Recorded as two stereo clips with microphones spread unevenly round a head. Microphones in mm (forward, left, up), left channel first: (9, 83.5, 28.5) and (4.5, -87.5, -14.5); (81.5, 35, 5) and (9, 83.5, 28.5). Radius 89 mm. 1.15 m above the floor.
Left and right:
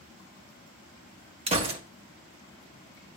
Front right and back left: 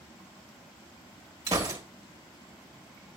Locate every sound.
1.5 s a gunshot: 155° right, 1.1 m